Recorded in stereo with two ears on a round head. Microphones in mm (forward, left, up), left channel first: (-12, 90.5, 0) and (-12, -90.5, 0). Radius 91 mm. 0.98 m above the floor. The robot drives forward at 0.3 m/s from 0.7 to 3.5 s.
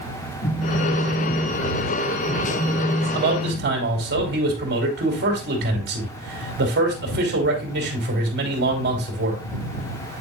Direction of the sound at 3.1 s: 60° right (ahead or behind).